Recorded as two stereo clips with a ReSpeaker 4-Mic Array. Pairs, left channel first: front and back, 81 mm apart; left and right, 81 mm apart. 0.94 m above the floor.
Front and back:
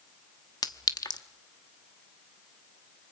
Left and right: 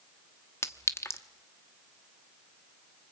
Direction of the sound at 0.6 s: 35° left.